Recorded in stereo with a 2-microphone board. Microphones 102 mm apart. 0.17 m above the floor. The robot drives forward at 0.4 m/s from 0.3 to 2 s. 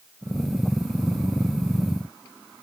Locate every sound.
Only background noise.